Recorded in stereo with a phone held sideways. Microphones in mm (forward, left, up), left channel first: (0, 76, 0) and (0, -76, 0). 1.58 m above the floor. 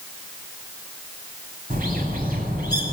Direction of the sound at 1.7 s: 70° right (ahead or behind).